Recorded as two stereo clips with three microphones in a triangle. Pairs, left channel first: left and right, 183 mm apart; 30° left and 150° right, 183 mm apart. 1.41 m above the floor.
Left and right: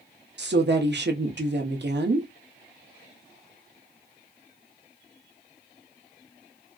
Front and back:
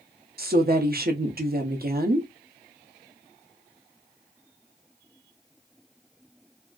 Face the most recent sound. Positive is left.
turn(degrees=-115)